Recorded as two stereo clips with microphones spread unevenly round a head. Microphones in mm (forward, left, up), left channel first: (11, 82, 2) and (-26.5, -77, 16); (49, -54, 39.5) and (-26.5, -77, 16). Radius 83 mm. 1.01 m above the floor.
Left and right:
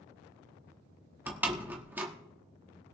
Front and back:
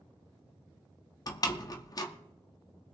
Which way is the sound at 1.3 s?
25° right.